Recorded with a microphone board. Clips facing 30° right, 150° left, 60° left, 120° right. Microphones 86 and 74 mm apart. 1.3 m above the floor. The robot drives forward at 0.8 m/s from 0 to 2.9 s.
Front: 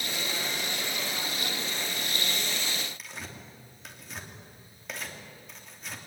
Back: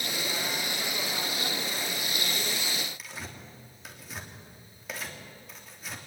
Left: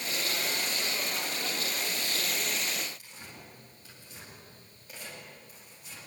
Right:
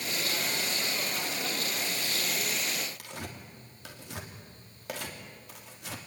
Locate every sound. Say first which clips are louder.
3.0 s tearing paper: even, right 7 dB; 120° right, 3 m